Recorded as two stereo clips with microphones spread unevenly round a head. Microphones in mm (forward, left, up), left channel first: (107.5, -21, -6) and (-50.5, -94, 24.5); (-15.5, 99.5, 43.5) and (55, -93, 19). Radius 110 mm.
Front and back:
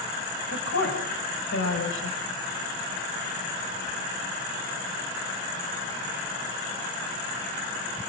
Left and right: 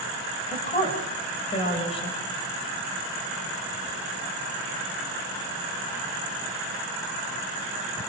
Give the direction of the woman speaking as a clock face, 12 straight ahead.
10 o'clock.